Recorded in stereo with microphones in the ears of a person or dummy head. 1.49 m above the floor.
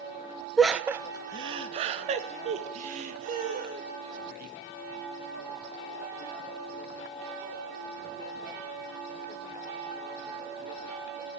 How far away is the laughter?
About 0.6 m.